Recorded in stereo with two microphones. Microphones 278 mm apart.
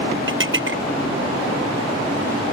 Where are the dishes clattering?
45° right (ahead or behind).